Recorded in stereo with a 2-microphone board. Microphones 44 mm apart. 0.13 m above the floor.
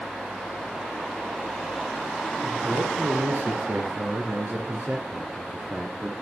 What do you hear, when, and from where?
2.4 s a man speaking: 60° right (ahead or behind), 2.5 m; by 6.1 s 35° right (ahead or behind), 2.5 m